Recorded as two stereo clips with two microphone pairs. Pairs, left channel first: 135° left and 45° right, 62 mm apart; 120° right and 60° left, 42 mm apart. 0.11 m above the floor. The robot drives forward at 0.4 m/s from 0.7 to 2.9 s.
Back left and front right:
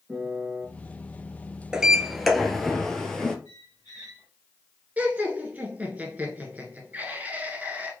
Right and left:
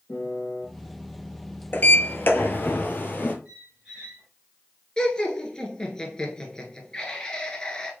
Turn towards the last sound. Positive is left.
turn(degrees=-65)